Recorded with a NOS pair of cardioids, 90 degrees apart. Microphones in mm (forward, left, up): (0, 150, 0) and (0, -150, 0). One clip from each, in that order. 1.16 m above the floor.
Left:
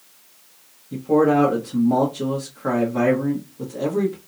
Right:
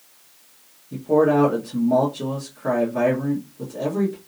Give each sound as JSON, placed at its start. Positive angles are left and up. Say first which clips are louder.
{"t": 0.9, "sound": "a man speaking", "louder": "even", "azimuth_deg": 5, "distance_m": 0.9}